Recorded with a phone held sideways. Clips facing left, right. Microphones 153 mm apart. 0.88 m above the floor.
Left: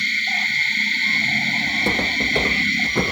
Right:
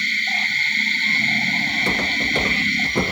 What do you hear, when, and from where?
1.7 s footsteps: 35° left (ahead or behind), 1.0 m; by 3.1 s 15° right (ahead or behind), 1.0 m